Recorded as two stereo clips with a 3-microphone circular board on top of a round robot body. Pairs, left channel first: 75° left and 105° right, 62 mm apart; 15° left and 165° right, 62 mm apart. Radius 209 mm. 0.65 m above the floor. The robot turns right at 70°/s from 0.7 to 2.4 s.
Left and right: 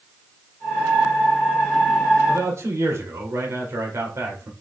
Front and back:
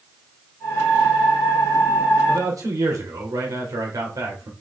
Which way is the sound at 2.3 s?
155° right.